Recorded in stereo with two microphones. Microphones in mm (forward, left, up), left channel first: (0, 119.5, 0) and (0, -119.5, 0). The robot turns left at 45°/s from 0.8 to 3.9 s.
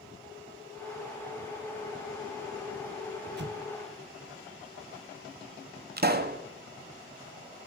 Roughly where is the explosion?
Right.